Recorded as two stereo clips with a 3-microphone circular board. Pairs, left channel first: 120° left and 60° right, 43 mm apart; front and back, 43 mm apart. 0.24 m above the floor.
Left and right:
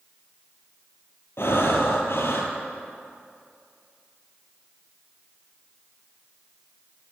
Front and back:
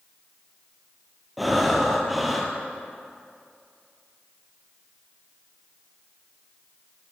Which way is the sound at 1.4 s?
90° left.